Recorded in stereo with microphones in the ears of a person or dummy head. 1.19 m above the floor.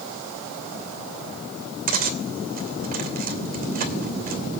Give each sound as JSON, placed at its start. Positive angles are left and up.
{"t": 1.9, "sound": "cutlery clinking", "side_deg": -45, "distance_m": 2.5}